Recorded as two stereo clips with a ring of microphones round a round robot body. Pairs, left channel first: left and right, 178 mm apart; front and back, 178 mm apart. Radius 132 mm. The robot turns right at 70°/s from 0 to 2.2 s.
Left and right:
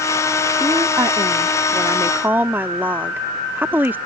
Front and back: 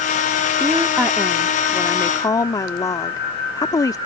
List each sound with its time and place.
0.6 s a woman speaking: 140° right; by 4.0 s 30° right